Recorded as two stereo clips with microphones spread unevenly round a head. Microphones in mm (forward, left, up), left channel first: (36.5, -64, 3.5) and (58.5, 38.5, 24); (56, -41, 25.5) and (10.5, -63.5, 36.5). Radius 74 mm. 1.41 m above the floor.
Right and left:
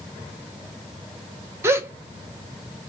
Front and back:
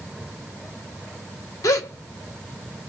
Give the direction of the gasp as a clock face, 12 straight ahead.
11 o'clock.